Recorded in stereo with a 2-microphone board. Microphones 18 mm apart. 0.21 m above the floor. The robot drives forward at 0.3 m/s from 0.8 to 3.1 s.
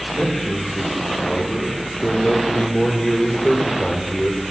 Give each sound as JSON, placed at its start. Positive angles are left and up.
{"t": 0.1, "sound": "a man speaking", "side_deg": 75, "distance_m": 4.5}